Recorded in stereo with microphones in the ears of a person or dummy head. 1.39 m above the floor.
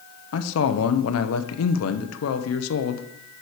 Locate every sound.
0.3 s a man speaking: 75° left (ahead or behind), 0.9 m